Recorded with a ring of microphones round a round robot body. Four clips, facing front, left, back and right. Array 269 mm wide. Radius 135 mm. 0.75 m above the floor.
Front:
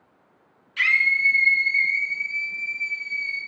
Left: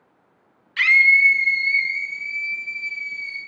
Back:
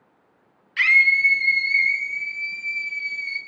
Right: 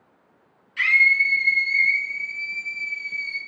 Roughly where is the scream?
Left.